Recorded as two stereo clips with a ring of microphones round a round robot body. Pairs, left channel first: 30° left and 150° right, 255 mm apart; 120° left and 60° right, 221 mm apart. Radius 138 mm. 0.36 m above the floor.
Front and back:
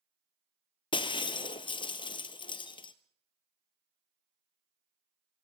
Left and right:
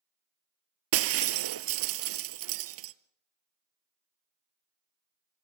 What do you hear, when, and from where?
0.9 s breaking glass: 45° right, 0.9 m